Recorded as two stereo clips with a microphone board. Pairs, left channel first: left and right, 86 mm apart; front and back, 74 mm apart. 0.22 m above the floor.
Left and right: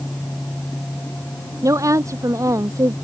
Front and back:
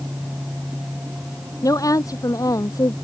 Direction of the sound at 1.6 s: 40° right.